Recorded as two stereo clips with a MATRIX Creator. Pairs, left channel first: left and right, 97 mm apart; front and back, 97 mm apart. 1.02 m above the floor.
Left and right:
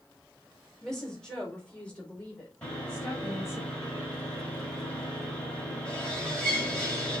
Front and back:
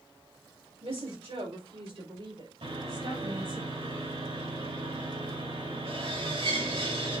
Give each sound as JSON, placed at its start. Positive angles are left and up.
{"t": 0.8, "sound": "a woman speaking", "azimuth_deg": 175, "distance_m": 4.0}
{"t": 2.6, "sound": "sawing", "azimuth_deg": 170, "distance_m": 4.0}